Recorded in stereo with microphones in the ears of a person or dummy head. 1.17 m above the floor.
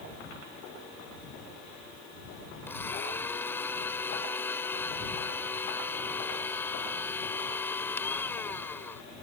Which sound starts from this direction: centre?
A blender, at 2.7 s.